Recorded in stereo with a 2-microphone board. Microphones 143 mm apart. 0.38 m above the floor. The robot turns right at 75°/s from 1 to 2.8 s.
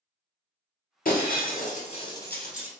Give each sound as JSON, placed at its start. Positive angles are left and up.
{"t": 1.1, "sound": "breaking glass", "side_deg": 70, "distance_m": 1.8}